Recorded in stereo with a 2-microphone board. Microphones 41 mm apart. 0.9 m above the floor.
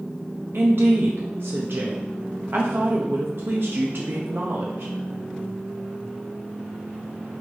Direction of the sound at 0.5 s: 60° right (ahead or behind).